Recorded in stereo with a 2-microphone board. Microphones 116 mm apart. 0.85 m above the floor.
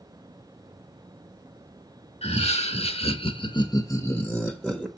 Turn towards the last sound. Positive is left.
turn(degrees=-10)  # may be behind; listen again after turning